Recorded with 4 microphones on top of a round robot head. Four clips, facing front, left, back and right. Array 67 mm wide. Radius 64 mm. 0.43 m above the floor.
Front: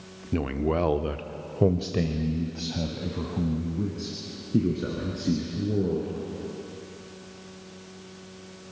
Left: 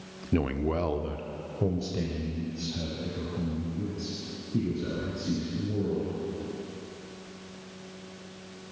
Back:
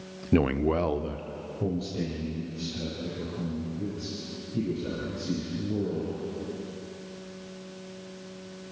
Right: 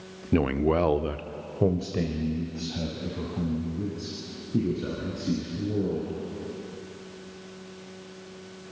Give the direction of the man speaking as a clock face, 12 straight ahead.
5 o'clock.